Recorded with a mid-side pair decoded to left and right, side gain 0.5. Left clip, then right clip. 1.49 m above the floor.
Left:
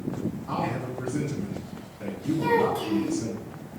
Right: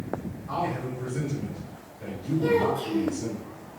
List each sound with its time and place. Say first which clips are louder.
0.5 s a man speaking: right 2 dB; 60° left, 3.5 m
2.4 s a child speaking: even; 60° left, 3.5 m